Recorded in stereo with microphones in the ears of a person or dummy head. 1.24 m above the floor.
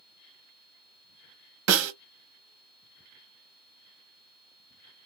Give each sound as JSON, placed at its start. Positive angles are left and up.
{"t": 1.7, "sound": "a snare drum", "side_deg": -65, "distance_m": 0.7}